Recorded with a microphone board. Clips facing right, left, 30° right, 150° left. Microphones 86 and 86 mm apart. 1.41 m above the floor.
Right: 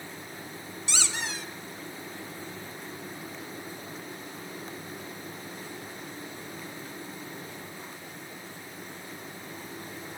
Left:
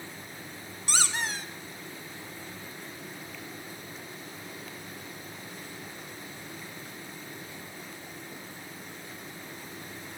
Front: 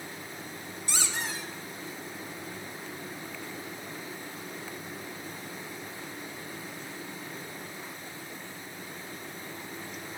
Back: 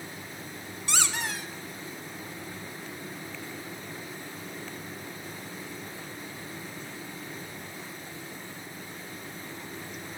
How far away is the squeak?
About 0.8 m.